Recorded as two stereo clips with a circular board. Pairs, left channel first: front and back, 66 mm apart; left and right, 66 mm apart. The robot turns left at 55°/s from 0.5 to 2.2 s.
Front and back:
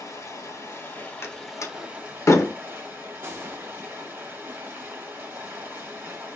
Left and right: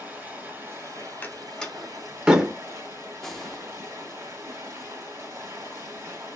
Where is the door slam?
35° left, 0.6 m; by 2.5 s 15° right, 0.6 m.